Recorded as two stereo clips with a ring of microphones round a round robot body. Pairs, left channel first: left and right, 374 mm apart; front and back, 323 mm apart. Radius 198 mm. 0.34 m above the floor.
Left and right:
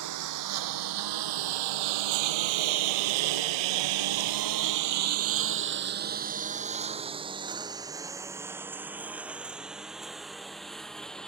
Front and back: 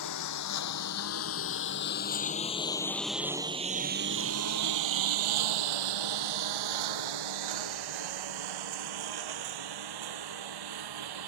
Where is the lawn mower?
45° right; by 11.3 s straight behind.